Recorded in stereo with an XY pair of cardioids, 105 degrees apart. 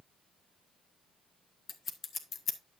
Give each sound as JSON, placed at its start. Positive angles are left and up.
{"t": 1.7, "sound": "scissors", "azimuth_deg": 45, "distance_m": 1.3}